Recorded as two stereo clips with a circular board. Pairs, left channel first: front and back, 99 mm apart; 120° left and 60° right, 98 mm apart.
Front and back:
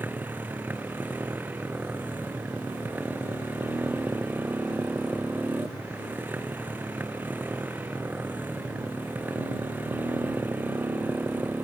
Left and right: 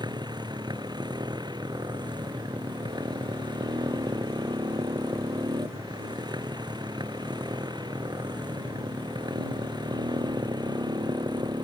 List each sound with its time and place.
0.0 s a motorcycle: 105° right